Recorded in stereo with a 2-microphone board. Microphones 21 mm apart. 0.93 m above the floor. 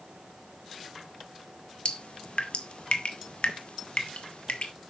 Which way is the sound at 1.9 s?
60° left (ahead or behind).